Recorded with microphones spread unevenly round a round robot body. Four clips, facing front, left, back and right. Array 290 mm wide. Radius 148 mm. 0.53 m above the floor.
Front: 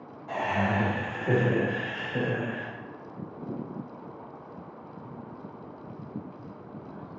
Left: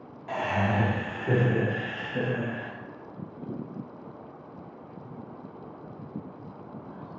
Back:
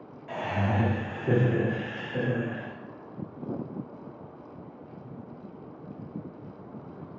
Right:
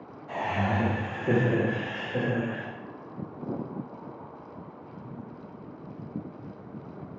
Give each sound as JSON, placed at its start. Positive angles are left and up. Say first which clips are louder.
{"t": 0.3, "sound": "laughter", "louder": "left 1 dB, front 2 dB", "azimuth_deg": 105, "distance_m": 1.1}